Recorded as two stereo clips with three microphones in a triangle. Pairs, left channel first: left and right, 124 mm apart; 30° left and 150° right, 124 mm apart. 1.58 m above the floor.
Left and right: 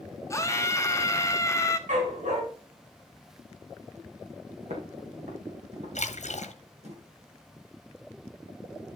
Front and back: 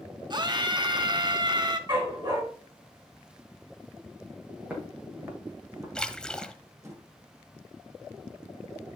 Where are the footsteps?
75° right, 4 m; by 7.0 s 85° right, 3 m.